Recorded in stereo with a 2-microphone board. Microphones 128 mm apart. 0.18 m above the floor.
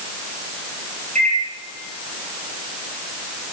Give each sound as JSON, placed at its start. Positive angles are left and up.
{"t": 1.1, "sound": "a microwave", "side_deg": -70, "distance_m": 3.5}